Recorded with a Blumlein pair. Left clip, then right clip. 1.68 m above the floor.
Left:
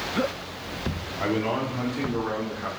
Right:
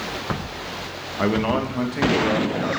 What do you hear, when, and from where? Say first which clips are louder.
1.2 s a man speaking: right 4 dB; 50° right, 1.7 m; by 2.7 s 70° right, 2 m